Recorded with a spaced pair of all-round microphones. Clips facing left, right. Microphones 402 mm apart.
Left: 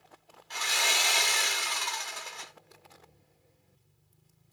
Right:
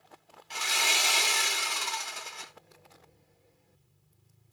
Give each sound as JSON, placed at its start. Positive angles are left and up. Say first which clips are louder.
{"t": 0.5, "sound": "sawing", "louder": "even", "side_deg": -45, "distance_m": 0.9}